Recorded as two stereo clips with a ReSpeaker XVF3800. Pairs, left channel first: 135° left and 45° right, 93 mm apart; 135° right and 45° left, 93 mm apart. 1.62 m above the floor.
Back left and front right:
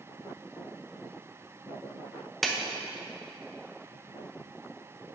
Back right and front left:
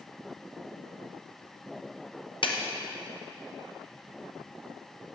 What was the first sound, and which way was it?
A clap, 135° right.